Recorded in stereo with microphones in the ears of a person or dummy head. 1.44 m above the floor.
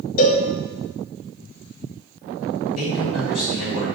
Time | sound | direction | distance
0.2 | a cowbell | 50° left (ahead or behind) | 0.6 m
2.8 | a man speaking | 80° left | 1.8 m